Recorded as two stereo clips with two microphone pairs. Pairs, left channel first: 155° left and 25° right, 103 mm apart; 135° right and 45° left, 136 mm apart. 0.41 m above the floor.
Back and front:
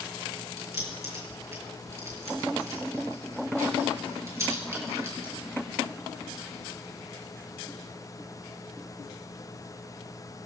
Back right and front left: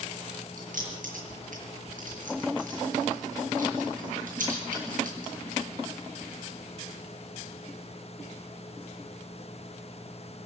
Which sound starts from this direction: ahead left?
Keys jangling, at 0.6 s.